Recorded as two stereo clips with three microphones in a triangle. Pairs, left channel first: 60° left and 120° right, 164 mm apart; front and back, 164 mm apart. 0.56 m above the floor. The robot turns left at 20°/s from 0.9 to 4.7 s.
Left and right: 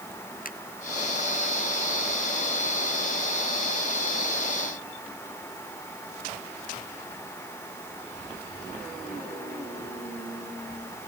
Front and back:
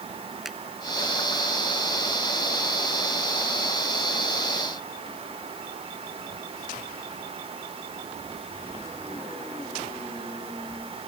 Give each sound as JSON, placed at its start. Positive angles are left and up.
{"t": 0.5, "sound": "a finger snap", "azimuth_deg": 90}